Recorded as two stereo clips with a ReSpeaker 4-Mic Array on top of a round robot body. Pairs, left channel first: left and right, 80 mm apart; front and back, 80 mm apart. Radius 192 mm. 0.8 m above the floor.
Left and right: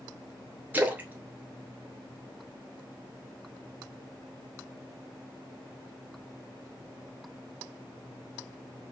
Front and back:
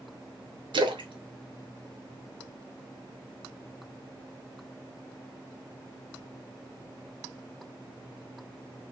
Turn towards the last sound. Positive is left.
turn(degrees=-160)